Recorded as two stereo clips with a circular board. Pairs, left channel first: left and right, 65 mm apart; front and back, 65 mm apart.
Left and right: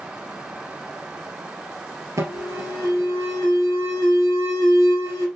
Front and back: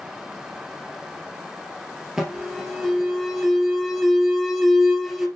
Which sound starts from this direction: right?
An alarm, at 2.2 s.